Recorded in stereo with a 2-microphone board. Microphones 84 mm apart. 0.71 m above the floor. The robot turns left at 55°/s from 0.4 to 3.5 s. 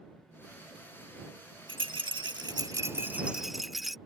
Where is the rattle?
80° right; by 4.0 s straight behind.